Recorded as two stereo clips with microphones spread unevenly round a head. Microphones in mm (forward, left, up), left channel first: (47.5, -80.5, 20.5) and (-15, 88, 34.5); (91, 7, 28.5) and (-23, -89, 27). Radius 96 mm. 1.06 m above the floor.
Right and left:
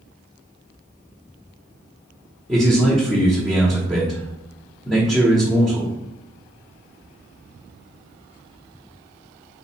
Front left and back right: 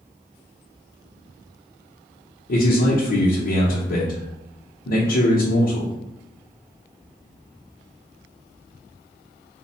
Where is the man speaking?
15° left, 0.8 m.